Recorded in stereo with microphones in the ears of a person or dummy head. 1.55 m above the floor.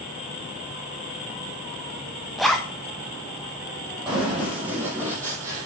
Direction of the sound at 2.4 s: Centre (ahead or behind).